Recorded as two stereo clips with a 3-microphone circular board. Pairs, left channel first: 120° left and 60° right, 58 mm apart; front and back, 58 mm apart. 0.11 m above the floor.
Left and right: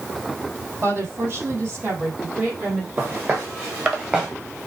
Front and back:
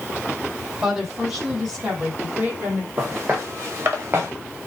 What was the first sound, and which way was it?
A woman speaking, 105° right.